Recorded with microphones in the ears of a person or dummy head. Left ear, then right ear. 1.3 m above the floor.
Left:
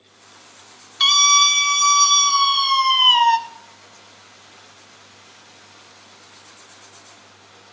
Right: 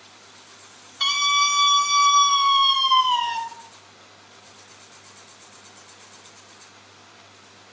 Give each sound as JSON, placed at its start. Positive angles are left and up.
{"t": 1.0, "sound": "a scream", "side_deg": 35, "distance_m": 2.5}